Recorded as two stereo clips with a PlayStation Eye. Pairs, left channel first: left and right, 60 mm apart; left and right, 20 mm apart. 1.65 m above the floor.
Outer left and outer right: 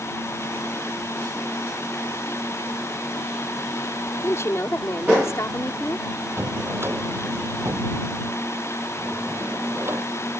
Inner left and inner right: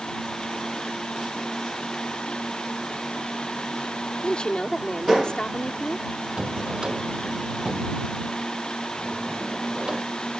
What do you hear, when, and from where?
4.2 s a woman speaking: 45° left (ahead or behind)
6.4 s a drawer: 40° right (ahead or behind)